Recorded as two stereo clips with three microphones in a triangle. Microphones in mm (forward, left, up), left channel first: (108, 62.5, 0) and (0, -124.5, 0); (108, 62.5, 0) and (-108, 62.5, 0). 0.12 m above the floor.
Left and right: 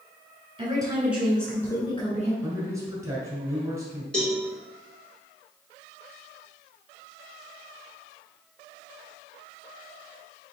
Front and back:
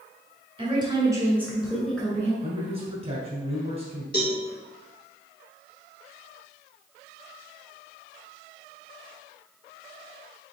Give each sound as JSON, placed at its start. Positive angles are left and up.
{"t": 0.6, "sound": "a woman speaking", "azimuth_deg": -150, "distance_m": 1.4}
{"t": 2.4, "sound": "a man speaking", "azimuth_deg": -175, "distance_m": 1.5}
{"t": 4.1, "sound": "a cowbell", "azimuth_deg": -25, "distance_m": 1.5}